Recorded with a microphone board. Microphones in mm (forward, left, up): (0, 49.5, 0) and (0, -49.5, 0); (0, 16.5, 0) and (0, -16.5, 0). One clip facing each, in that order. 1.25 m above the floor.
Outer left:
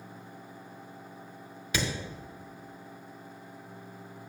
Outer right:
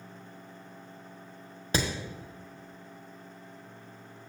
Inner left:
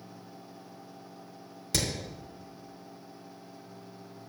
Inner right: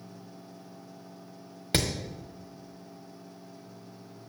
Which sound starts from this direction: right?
Hammering, at 1.7 s.